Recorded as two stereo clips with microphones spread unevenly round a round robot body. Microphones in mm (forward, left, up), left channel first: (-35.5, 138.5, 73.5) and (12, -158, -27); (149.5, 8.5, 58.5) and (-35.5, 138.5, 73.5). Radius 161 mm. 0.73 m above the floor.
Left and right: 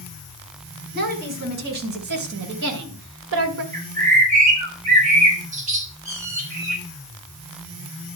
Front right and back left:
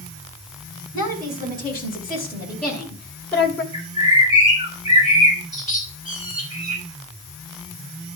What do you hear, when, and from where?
0.9 s a woman speaking: 140° right, 5 m; by 3.6 s 115° right, 2 m
3.7 s a bird: 140° right, 4.5 m